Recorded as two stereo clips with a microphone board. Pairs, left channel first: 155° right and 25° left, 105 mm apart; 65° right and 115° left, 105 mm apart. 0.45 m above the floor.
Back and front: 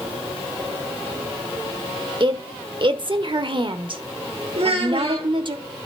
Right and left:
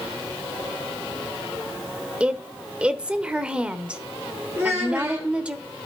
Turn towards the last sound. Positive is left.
turn(degrees=40)